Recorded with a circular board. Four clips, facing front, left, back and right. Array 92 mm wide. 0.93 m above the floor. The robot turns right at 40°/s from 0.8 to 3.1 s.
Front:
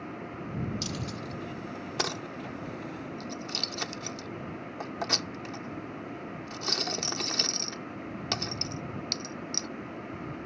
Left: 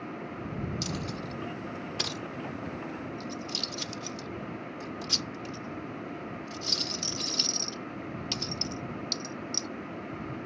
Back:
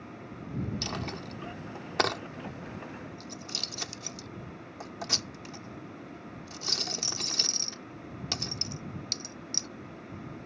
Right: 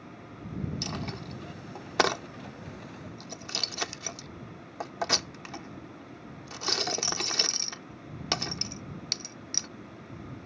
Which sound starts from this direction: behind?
A dropped coin, at 0.8 s.